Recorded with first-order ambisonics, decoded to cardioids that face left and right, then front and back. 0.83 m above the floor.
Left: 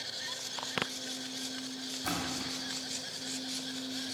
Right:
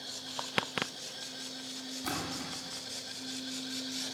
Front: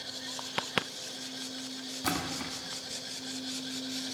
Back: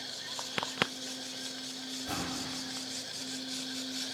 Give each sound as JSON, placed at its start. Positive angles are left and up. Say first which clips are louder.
{"t": 2.0, "sound": "a splash", "louder": "left 2 dB, front 4 dB", "azimuth_deg": 5, "distance_m": 1.9}